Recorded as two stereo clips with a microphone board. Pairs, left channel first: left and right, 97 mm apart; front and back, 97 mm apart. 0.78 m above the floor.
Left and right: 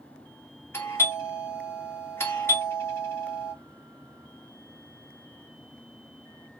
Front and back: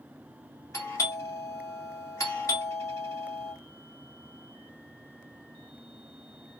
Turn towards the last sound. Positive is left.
turn(degrees=35)